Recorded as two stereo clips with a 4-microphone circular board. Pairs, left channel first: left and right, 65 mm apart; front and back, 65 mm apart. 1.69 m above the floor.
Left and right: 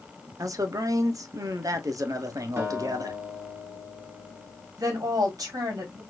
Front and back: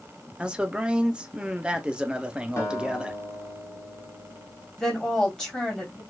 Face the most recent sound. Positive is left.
turn(degrees=-80)